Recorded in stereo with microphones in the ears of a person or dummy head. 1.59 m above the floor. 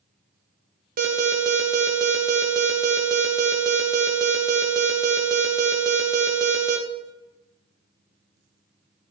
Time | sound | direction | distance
1.0 | an alarm | 45° right (ahead or behind) | 1.2 m